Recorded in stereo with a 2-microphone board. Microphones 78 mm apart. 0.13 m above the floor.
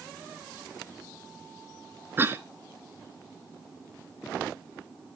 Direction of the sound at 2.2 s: 25° right (ahead or behind).